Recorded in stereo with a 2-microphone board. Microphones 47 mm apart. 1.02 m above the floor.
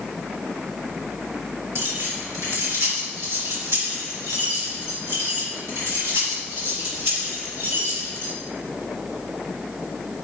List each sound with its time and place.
1.8 s keys jangling: 75° right (ahead or behind), 3.5 m; by 8.3 s 60° right (ahead or behind), 6.5 m